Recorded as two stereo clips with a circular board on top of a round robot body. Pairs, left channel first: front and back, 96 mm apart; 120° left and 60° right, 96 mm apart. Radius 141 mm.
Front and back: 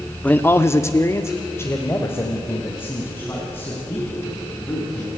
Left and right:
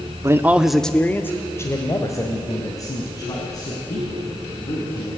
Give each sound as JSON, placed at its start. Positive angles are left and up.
{"t": 0.2, "sound": "a man speaking", "azimuth_deg": -55, "distance_m": 1.1}